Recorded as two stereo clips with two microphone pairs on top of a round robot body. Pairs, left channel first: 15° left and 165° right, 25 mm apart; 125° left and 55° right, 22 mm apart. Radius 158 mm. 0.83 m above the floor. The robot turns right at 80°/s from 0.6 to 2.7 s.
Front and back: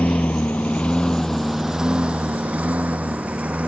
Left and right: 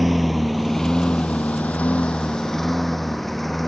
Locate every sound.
0.0 s a lawn mower: 30° left; by 3.7 s 155° right